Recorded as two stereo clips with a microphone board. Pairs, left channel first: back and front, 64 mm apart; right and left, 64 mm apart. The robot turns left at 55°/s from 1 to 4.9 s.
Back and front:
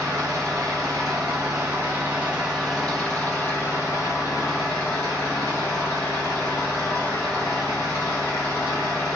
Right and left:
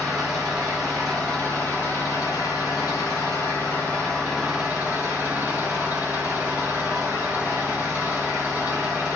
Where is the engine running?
5° left, 1.0 m; by 9.2 s 150° left, 1.0 m.